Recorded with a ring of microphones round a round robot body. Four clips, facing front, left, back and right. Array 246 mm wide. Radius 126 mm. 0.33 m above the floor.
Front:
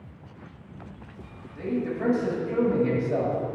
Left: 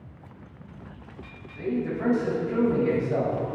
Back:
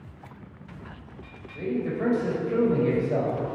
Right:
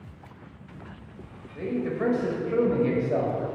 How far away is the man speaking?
About 1.9 m.